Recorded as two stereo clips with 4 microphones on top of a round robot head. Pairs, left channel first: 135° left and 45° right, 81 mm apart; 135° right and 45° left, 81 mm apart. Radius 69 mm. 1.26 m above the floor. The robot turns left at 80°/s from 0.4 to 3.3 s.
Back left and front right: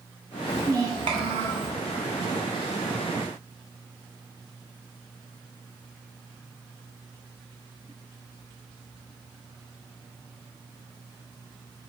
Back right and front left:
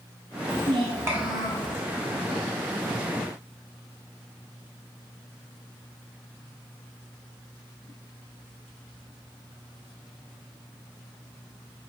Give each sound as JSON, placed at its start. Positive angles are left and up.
{"t": 0.5, "sound": "a child speaking", "azimuth_deg": 30, "distance_m": 0.6}